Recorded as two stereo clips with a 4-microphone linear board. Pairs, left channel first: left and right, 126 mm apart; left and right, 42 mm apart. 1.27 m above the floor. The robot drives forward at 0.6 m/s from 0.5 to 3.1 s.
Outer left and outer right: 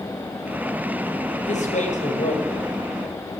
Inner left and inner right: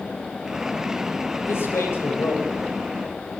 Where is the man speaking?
75° left (ahead or behind), 6.5 m; by 2.7 s 80° left, 6 m.